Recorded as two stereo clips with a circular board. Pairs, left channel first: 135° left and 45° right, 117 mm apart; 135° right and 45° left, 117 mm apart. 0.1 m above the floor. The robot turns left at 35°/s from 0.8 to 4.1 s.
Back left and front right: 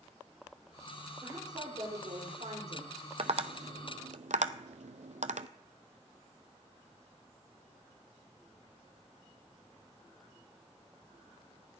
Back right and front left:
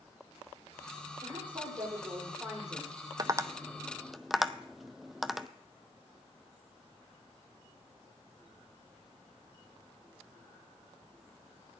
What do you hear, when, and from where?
1.2 s a woman speaking: 10° left, 6 m; by 3.0 s 50° right, 6 m
3.2 s tapping: 10° right, 0.6 m; by 5.5 s 40° right, 0.6 m